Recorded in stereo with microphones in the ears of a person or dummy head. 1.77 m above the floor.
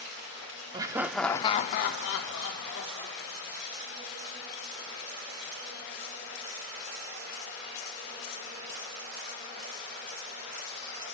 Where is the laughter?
25° right (ahead or behind), 0.7 m; by 3.6 s 75° left (ahead or behind), 1.7 m.